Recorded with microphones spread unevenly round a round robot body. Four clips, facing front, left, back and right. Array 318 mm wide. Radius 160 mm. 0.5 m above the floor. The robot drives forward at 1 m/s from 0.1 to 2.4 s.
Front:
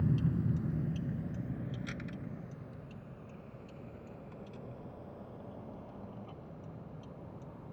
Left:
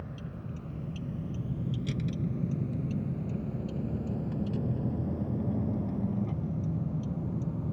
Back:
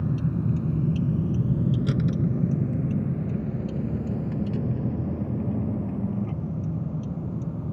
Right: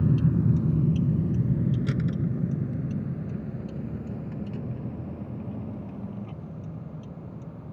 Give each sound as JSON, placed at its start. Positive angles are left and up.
{"t": 0.0, "sound": "a vehicle", "azimuth_deg": -105}